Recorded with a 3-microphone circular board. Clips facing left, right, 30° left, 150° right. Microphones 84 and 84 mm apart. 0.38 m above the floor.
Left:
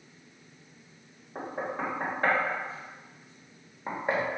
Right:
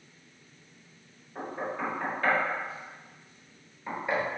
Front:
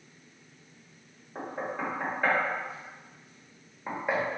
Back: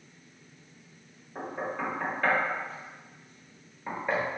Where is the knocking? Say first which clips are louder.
Even, back 1 dB; 95° left, 1.1 m.